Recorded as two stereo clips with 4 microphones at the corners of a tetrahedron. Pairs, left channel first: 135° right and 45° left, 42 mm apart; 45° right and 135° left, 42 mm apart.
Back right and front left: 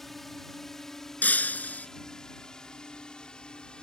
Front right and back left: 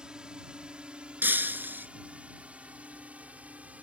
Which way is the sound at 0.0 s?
145° left.